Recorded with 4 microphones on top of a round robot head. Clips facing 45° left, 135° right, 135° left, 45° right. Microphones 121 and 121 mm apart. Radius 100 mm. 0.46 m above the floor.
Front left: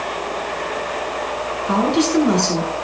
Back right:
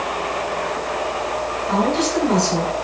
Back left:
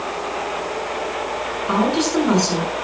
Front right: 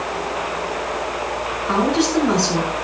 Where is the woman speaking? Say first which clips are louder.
Front left 3 dB, front right 1 dB; 70° left, 7.5 m.